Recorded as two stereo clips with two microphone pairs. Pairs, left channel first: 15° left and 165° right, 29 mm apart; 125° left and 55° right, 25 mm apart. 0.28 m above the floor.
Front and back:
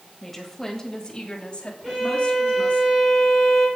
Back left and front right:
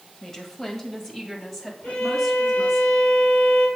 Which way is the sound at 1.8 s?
110° left.